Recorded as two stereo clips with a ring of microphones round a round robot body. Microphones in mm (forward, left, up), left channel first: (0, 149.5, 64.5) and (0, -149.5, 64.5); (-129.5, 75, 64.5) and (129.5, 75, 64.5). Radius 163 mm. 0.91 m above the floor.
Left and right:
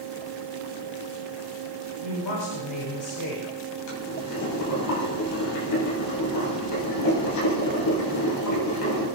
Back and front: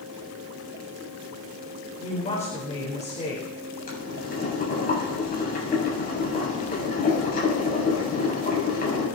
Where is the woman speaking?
115° left, 4.5 m.